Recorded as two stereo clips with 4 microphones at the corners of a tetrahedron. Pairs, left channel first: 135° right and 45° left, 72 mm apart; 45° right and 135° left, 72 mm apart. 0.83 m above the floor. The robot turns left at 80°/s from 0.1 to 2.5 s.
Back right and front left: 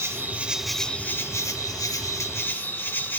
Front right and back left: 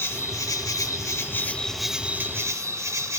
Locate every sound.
0.0 s an insect: straight ahead, 0.7 m; by 3.2 s 170° left, 0.7 m